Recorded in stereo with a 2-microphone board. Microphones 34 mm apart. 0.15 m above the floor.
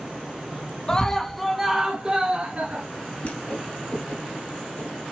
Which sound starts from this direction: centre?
A scream, at 0.9 s.